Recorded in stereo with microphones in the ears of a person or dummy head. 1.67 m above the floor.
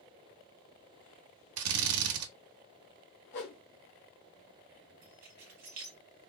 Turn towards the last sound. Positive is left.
turn(degrees=-40)  # may be behind; listen again after turning